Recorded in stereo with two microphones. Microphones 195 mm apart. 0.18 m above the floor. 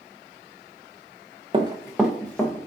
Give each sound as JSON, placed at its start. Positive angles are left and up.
{"t": 1.5, "sound": "running footsteps", "side_deg": -30, "distance_m": 0.6}